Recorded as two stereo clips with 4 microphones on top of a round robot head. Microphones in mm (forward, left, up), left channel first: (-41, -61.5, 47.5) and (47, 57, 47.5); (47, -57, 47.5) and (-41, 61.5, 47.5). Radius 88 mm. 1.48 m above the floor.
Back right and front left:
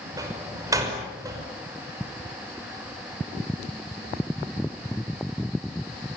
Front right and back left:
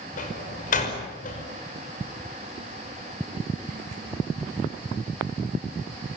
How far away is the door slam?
About 5.5 m.